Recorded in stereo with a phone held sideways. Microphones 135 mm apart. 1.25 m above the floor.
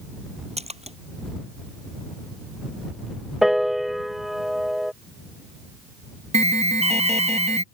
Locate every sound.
0.6 s a splash: 50° right (ahead or behind)
3.4 s a piano: centre (ahead or behind)
6.3 s an alarm: 55° right (ahead or behind)